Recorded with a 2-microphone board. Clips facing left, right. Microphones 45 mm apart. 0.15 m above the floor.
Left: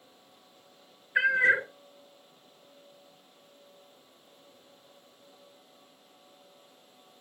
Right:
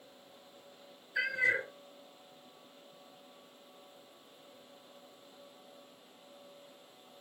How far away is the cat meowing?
About 0.6 m.